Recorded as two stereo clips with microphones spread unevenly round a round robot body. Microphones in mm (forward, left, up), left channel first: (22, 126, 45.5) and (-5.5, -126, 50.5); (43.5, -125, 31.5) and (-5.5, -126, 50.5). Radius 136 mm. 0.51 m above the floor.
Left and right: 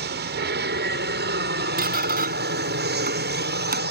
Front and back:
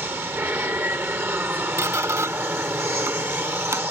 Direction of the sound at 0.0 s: 130° right.